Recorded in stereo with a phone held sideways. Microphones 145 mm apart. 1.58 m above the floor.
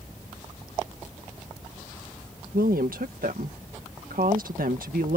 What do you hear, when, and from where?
2.5 s a woman speaking: 80° right